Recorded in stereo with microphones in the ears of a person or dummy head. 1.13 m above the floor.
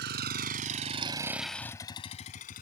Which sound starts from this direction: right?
A vehicle, at 0.0 s.